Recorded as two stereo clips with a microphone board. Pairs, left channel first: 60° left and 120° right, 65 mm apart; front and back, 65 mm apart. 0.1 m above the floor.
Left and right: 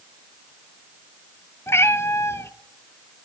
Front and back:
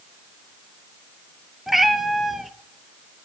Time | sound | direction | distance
1.7 | a cat meowing | 95° left | 0.6 m